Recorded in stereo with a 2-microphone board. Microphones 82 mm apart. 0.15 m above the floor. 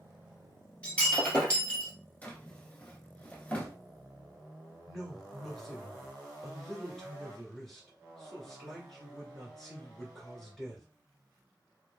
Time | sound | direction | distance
0.8 | breaking glass | 15° left (ahead or behind) | 1.9 m
2.2 | a drawer | 20° left (ahead or behind) | 0.8 m
4.9 | a woman speaking | 5° left (ahead or behind) | 1.8 m